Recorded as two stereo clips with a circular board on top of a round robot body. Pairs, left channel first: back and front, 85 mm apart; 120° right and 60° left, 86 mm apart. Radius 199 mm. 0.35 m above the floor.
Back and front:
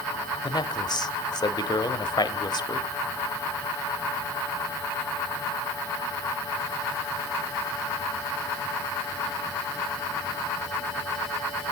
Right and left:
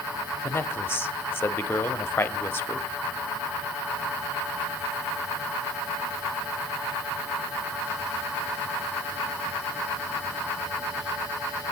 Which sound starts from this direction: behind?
A man speaking, at 0.4 s.